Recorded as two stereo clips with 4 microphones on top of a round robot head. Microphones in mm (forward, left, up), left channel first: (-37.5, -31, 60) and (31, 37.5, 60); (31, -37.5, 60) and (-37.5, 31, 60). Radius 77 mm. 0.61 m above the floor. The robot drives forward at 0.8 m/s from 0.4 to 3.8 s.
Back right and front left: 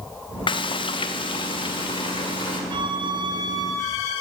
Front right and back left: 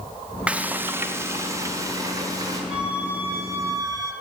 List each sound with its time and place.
0.5 s frying: 150° right, 0.8 m; by 2.6 s 170° right, 2.5 m
2.7 s a flute: 55° left, 1.8 m; by 4.1 s 90° left, 1.5 m